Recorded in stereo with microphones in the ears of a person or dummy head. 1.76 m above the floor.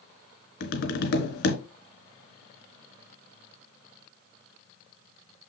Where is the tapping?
50° left (ahead or behind), 1.5 m.